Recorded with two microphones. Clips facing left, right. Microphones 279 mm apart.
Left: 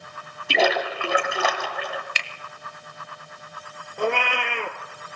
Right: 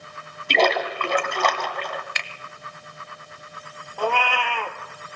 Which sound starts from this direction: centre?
A splash, at 0.5 s.